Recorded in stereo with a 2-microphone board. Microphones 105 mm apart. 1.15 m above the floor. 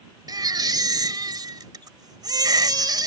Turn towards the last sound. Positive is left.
turn(degrees=-40)  # may be behind; listen again after turning